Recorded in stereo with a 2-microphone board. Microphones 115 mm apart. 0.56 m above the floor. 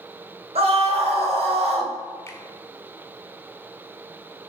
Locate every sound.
0.6 s a scream: 65° right (ahead or behind), 2.5 m
2.3 s a finger snap: 20° left (ahead or behind), 1.3 m